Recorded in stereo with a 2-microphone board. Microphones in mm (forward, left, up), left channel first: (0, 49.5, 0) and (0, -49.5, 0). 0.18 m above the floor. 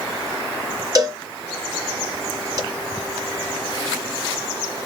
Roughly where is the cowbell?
Right.